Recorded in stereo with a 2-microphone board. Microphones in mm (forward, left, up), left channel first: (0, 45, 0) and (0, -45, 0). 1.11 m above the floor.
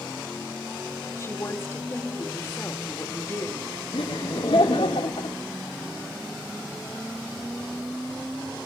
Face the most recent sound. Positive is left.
turn(degrees=75)  # may be behind; listen again after turning